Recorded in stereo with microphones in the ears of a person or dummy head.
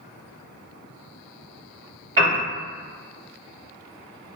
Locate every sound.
2.2 s a piano: 15° right (ahead or behind), 1.2 m